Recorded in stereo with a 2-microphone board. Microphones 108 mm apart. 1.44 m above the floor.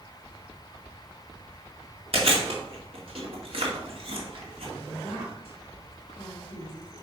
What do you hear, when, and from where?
2.1 s chewing: 60° right (ahead or behind), 2 m
4.8 s a woman speaking: 60° left (ahead or behind), 2.5 m